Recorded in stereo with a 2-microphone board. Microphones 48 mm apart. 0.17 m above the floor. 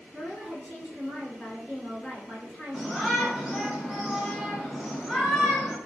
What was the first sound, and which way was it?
A woman speaking, 30° right (ahead or behind).